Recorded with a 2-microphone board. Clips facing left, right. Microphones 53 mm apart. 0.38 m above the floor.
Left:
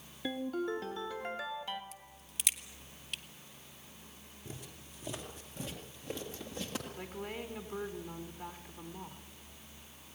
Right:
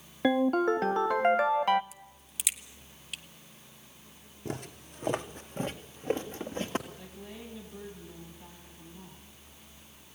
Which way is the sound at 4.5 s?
70° right (ahead or behind).